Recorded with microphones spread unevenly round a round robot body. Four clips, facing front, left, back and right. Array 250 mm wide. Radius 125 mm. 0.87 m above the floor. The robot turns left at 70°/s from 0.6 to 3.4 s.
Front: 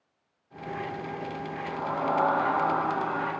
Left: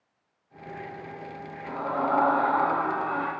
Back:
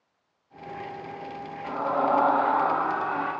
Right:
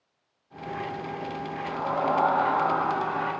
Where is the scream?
175° right, 4 m; by 3.3 s 65° left, 4 m.